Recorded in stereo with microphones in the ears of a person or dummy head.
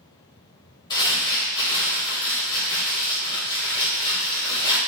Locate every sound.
0.9 s crumpling: 20° left (ahead or behind), 3 m